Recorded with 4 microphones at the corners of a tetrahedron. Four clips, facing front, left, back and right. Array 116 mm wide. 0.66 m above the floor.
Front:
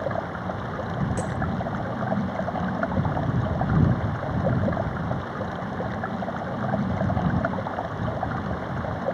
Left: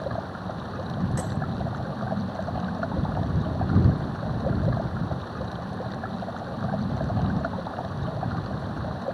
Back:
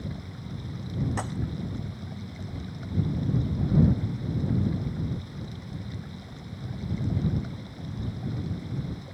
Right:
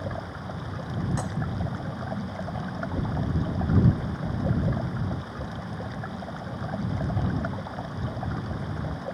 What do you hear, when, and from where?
0.0 s running water: 15° left
1.2 s breaking glass: 160° right